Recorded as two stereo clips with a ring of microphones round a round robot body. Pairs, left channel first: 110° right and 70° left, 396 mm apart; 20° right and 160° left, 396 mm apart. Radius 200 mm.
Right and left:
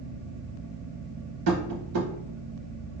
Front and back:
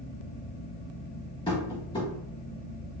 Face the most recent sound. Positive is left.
turn(degrees=50)